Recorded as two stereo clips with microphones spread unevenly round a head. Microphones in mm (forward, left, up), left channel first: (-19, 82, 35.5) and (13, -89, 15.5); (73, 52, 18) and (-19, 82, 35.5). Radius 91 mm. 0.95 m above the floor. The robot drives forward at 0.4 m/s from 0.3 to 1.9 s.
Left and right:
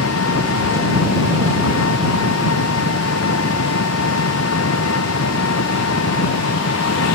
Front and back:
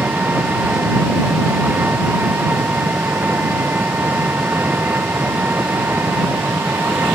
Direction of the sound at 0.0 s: 90° left.